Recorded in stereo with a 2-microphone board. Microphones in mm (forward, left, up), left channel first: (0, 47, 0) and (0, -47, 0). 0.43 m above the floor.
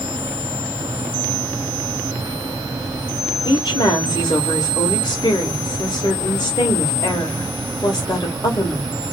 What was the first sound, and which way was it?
A woman speaking, 50° left (ahead or behind).